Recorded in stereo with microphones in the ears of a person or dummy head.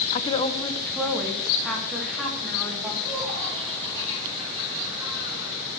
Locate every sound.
0.1 s a woman speaking: 45° left (ahead or behind), 0.7 m; by 2.9 s centre (ahead or behind), 4 m
3.0 s laughter: 25° right (ahead or behind), 5 m